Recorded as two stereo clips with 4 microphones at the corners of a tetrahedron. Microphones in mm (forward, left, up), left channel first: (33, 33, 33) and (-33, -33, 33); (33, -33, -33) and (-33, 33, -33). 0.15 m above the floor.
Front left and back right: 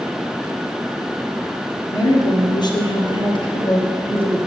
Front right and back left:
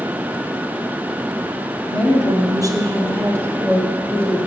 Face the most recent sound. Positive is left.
turn(degrees=30)